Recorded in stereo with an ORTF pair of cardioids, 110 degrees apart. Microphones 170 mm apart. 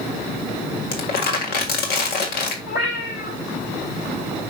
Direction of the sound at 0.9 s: 70° left.